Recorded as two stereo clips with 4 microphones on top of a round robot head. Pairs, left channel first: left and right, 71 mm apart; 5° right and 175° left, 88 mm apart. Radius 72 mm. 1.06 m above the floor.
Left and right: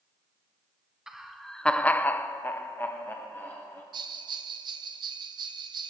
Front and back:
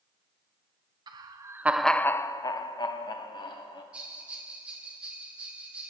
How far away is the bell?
About 0.8 m.